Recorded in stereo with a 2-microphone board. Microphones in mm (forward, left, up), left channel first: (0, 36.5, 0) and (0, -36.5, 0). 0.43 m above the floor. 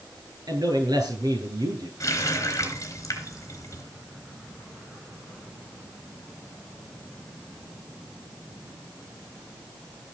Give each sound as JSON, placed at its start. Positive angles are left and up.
{"t": 0.5, "sound": "a man speaking", "side_deg": -65, "distance_m": 8.5}
{"t": 2.0, "sound": "a running tap", "side_deg": 45, "distance_m": 3.5}